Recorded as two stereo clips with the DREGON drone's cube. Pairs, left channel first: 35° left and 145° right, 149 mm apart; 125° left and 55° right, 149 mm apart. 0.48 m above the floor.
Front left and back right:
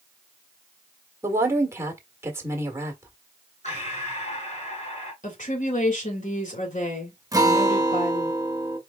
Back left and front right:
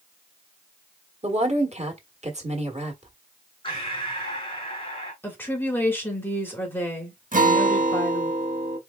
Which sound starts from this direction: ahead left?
A woman speaking, at 5.2 s.